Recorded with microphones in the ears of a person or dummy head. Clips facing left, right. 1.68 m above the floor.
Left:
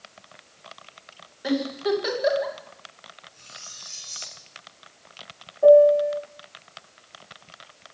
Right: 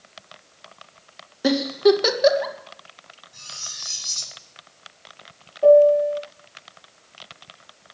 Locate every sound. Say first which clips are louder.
1.4 s a giggle: right 7 dB; 60° right (ahead or behind), 2.5 m
3.3 s cutlery clinking: right 2 dB; 85° right, 7.5 m
5.6 s a piano: even; centre (ahead or behind), 1.6 m